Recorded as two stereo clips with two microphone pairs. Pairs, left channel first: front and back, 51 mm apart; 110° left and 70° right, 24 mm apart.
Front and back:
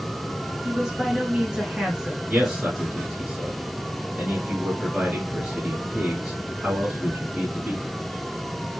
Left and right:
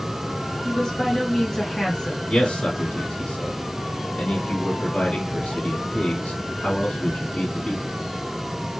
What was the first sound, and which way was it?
A woman speaking, 135° left.